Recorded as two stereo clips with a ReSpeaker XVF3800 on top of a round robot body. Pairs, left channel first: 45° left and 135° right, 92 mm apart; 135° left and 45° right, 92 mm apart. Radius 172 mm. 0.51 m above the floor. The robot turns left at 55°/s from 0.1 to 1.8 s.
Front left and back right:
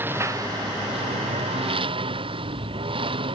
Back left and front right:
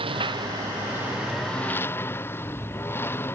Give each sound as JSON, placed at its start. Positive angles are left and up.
{"t": 0.0, "sound": "a lawn mower", "azimuth_deg": -65}